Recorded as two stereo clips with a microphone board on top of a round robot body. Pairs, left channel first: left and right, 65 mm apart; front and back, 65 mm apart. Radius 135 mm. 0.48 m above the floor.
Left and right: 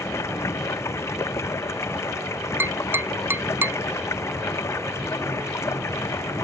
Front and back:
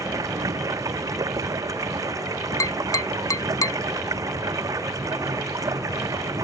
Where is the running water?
140° left.